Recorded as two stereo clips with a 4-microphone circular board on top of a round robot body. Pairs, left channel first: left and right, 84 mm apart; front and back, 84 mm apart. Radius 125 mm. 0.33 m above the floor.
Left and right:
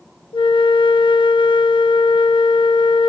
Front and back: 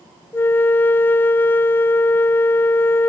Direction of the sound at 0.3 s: 65° left.